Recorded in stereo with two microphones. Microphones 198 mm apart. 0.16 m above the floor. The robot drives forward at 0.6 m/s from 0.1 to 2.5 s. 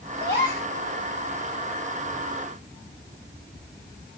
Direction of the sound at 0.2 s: 50° left (ahead or behind).